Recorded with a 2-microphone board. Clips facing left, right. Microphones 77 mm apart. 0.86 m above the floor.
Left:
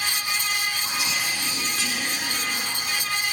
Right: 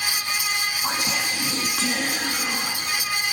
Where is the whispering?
50° right (ahead or behind), 1.4 m.